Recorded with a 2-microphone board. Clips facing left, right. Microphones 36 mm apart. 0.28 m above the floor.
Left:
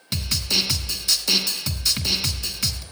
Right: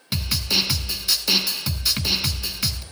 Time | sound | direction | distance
0.1 | a snare drum | 10° right (ahead or behind) | 1.2 m